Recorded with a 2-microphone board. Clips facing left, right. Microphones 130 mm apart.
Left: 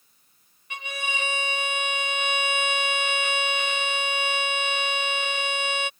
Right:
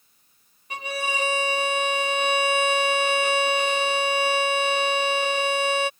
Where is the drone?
I don't hear a drone.